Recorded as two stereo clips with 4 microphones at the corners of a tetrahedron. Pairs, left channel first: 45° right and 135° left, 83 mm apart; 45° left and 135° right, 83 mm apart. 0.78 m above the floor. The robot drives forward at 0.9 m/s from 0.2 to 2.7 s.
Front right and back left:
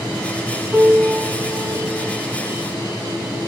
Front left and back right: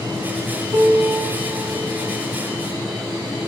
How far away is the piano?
About 7.5 m.